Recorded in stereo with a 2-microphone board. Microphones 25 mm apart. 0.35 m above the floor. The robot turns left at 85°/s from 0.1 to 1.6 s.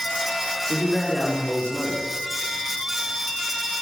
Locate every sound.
0.7 s a man speaking: 120° left, 3.5 m; by 2.0 s 40° left, 3.5 m